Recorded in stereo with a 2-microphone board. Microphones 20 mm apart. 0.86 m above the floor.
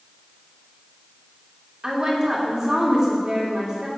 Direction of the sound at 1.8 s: 40° right (ahead or behind).